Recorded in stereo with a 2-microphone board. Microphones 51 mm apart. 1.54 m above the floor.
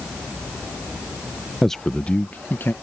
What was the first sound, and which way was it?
A man speaking, centre (ahead or behind).